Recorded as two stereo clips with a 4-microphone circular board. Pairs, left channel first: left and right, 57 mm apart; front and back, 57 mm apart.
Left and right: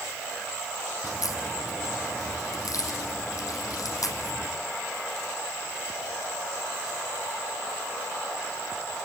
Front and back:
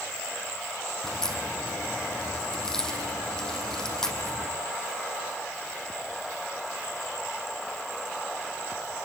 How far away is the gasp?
I don't hear a gasp.